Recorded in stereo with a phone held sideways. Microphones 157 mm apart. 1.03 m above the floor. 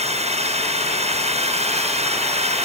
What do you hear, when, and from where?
0.0 s a drone: 45° right (ahead or behind)